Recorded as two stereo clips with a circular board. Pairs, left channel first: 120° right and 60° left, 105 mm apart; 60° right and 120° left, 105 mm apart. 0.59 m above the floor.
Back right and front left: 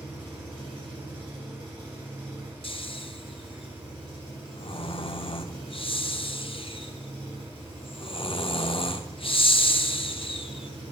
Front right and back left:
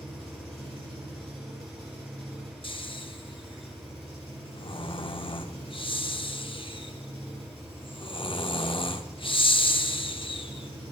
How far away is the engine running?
About 4.5 m.